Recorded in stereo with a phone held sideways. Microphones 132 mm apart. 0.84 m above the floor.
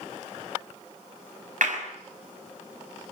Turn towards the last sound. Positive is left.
turn(degrees=-70)  # may be behind; listen again after turning